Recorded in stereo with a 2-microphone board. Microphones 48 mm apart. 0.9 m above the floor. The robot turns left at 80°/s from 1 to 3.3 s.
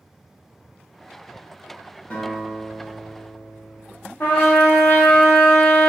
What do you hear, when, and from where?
2.1 s a guitar: 55° left, 1.0 m; by 4.1 s 40° right, 1.0 m
4.2 s a trumpet: 45° left (ahead or behind), 0.7 m